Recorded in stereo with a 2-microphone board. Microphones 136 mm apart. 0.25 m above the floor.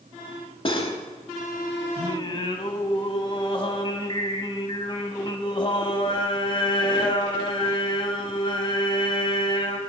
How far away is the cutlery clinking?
About 0.7 m.